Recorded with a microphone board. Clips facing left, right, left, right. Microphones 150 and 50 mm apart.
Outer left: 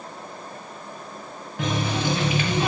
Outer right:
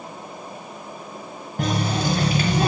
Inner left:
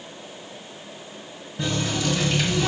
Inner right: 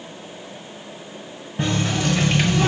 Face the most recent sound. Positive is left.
turn(degrees=-40)  # may be behind; listen again after turning